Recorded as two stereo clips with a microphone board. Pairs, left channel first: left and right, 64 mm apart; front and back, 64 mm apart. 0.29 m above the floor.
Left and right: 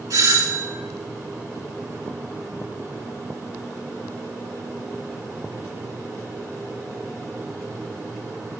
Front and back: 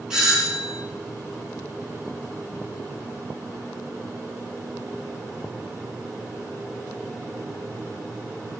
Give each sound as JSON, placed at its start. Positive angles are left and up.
{"t": 0.1, "sound": "a doorbell", "azimuth_deg": -100, "distance_m": 4.0}